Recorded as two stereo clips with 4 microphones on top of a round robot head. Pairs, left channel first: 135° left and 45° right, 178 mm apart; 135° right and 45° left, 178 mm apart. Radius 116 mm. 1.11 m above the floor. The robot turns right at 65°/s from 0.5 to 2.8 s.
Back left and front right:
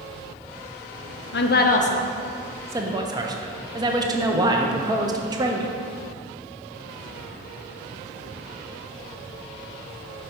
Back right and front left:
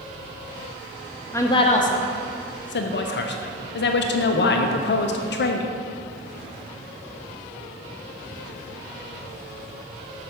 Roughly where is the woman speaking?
Behind left.